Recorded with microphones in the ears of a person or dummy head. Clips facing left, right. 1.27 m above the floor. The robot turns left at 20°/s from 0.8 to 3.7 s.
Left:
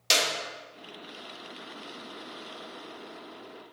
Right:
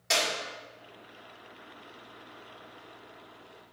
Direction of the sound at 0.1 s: 50° left (ahead or behind).